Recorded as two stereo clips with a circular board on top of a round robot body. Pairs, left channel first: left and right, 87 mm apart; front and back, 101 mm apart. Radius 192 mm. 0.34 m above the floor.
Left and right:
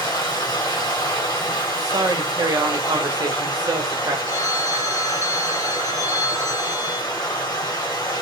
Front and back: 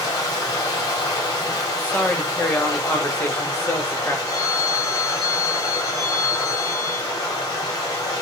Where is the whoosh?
I don't hear a whoosh.